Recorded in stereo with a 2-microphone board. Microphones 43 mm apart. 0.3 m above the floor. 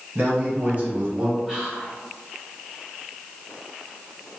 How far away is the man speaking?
About 1.6 m.